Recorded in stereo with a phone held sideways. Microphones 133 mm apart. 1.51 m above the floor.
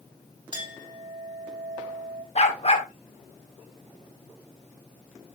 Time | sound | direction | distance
0.5 | a clink | 35° right (ahead or behind) | 3 m
2.4 | a dog barking | 50° left (ahead or behind) | 2 m